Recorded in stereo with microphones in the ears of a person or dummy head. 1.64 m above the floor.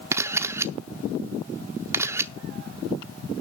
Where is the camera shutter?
15° right (ahead or behind), 0.8 m.